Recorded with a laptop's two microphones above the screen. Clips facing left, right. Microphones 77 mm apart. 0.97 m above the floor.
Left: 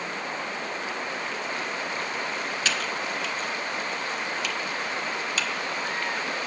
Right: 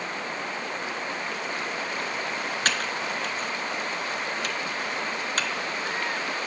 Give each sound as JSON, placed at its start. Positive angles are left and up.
{"t": 2.6, "sound": "typing on a keyboard", "side_deg": -45, "distance_m": 0.6}